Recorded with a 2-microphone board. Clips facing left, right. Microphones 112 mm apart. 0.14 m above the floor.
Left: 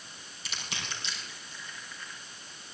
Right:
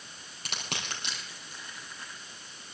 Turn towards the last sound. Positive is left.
turn(degrees=-60)  # may be behind; listen again after turning